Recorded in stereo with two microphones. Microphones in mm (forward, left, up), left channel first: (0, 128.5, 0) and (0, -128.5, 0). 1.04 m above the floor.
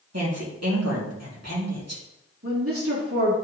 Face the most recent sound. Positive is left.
turn(degrees=-60)  # may be behind; listen again after turning